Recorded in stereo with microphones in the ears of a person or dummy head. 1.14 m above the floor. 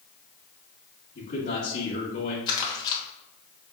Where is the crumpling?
25° left (ahead or behind), 1.4 m.